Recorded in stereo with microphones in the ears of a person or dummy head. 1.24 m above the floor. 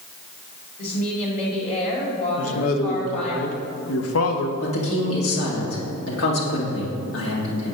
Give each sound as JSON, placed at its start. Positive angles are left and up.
{"t": 0.8, "sound": "a woman speaking", "side_deg": 25, "distance_m": 1.9}
{"t": 2.4, "sound": "a man speaking", "side_deg": 80, "distance_m": 0.9}
{"t": 4.6, "sound": "a woman speaking", "side_deg": 75, "distance_m": 2.0}